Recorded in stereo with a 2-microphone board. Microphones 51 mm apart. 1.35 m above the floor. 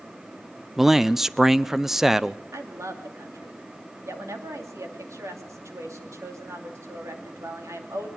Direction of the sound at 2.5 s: 85° right.